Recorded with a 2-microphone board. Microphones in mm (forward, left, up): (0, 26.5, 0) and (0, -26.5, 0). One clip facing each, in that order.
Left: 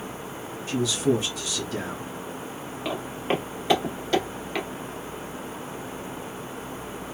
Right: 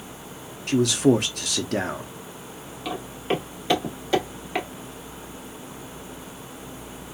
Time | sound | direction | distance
0.7 | a man speaking | 60° right (ahead or behind) | 0.6 m
2.9 | footsteps | 20° left (ahead or behind) | 1.3 m